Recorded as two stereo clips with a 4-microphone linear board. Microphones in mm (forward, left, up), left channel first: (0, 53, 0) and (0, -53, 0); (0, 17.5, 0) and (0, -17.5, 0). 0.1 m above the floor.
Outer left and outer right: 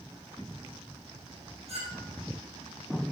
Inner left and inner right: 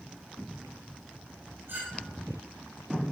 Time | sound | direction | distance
1.7 | a clink | 75° right (ahead or behind) | 4 m